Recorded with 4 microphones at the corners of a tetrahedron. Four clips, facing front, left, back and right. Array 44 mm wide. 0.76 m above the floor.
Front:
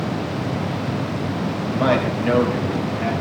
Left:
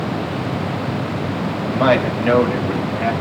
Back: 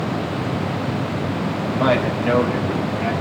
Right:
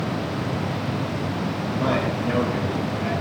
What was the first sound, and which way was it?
A man speaking, 90° left.